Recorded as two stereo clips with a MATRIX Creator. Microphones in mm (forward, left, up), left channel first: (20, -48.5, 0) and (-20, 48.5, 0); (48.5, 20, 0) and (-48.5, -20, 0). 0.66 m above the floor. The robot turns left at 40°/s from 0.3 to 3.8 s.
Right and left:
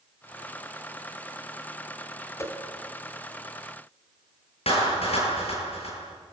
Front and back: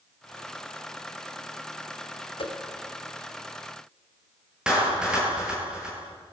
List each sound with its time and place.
2.4 s a whoosh: 5° right, 2 m; by 2.5 s 10° right, 2 m
4.7 s a clap: 75° right, 10 m